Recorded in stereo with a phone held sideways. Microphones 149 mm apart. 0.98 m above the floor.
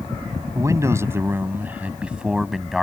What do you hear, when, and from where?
0.6 s a man speaking: 20° right (ahead or behind); by 2.8 s centre (ahead or behind)